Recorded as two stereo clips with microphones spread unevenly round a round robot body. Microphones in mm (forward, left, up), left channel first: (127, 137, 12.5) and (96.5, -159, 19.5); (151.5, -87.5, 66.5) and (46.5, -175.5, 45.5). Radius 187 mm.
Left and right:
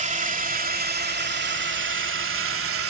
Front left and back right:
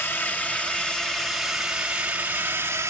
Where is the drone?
40° right; by 2.9 s 85° right.